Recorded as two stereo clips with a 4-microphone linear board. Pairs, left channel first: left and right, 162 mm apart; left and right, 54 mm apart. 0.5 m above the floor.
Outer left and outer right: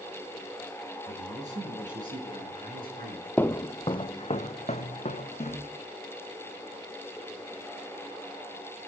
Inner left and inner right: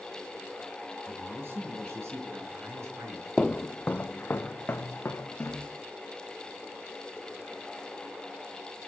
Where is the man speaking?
50° right (ahead or behind), 6 m; by 3.3 s 70° right (ahead or behind), 5.5 m.